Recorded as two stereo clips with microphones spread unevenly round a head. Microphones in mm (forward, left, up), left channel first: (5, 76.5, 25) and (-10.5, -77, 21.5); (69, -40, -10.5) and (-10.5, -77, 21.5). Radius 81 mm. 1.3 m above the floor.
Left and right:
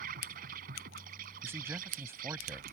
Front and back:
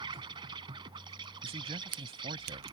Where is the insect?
130° right.